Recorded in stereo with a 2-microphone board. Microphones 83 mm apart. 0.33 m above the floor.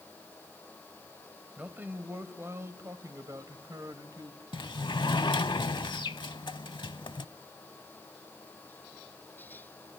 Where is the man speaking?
20° right (ahead or behind), 1.7 m; by 4.4 s 50° right (ahead or behind), 1.8 m.